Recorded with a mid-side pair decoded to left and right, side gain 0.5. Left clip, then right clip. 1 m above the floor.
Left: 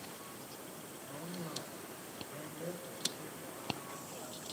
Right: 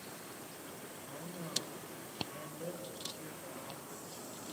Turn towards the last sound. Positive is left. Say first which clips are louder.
# left 2 dB
turn(degrees=-5)